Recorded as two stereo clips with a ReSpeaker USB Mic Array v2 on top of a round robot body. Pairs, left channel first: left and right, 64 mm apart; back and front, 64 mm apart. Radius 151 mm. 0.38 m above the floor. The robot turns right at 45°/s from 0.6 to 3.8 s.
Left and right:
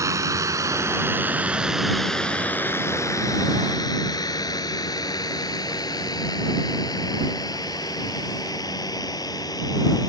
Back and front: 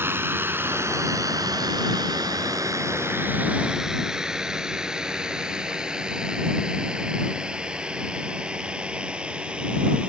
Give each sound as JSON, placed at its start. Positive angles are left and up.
{"t": 0.0, "sound": "a drone", "azimuth_deg": -55}